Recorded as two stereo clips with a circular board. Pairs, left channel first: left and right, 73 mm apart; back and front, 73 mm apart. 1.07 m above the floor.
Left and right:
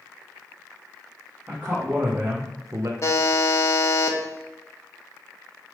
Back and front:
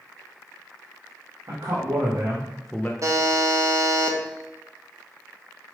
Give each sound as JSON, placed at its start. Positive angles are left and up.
{"t": 1.5, "sound": "a man speaking", "azimuth_deg": -20, "distance_m": 1.6}
{"t": 3.0, "sound": "a buzzer", "azimuth_deg": 45, "distance_m": 1.1}